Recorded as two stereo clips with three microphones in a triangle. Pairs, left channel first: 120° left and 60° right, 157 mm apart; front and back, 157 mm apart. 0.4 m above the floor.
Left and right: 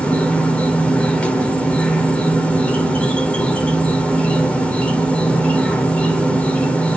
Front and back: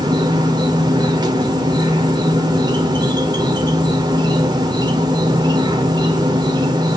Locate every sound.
0.0 s an insect: 165° right, 1.7 m